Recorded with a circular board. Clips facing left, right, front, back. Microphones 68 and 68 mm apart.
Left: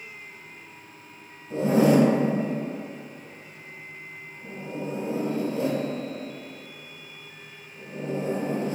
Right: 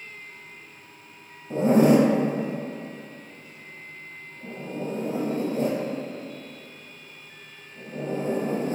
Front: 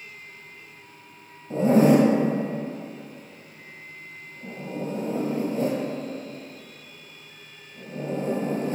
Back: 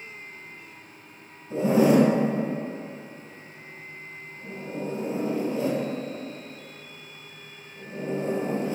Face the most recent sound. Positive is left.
turn(degrees=-45)